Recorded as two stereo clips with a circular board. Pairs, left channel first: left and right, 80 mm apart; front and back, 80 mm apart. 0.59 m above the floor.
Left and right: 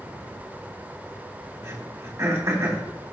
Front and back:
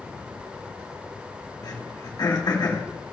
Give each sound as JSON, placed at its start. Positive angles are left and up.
{"t": 1.6, "sound": "throat clearing", "azimuth_deg": -35, "distance_m": 2.0}